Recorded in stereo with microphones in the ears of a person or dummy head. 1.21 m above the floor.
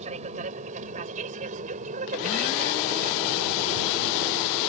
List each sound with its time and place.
0.0 s an aircraft: 35° right (ahead or behind); by 4.7 s 40° right (ahead or behind)